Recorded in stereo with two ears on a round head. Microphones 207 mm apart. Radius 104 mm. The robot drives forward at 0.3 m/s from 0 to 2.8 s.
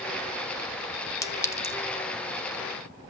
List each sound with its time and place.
1.2 s a clink: 15° left (ahead or behind), 0.7 m; by 1.8 s 10° left (ahead or behind), 0.8 m